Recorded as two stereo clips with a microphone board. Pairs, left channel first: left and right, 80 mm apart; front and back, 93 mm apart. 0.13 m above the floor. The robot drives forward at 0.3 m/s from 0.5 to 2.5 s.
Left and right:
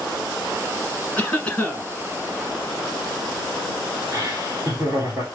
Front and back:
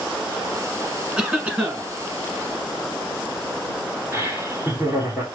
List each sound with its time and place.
1.2 s a cough: 115° left, 1.2 m; by 1.9 s 135° left, 1.2 m
4.1 s laughter: 125° right, 1.4 m